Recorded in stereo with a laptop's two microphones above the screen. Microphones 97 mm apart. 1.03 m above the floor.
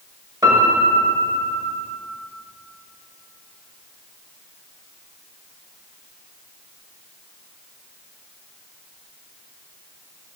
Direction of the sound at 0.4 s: 40° right (ahead or behind).